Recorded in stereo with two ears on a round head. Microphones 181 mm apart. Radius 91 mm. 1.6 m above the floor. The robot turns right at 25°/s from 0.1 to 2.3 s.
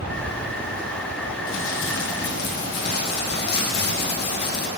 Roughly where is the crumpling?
Left.